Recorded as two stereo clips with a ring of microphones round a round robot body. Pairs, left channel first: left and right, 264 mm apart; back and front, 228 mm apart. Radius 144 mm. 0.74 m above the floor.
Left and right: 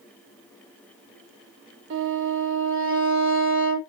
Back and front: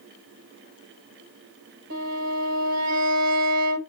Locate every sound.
1.9 s a violin: 45° right, 2.5 m